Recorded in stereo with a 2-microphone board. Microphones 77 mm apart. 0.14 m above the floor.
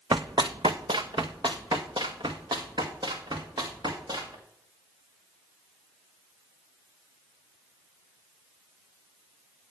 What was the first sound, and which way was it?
Running footsteps, 60° right (ahead or behind).